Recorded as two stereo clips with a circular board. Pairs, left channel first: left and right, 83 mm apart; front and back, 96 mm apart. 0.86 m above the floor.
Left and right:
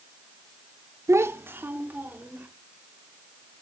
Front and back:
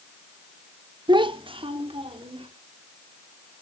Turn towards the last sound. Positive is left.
turn(degrees=-160)